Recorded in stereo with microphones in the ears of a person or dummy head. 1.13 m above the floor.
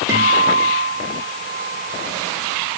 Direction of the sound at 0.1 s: 20° right (ahead or behind).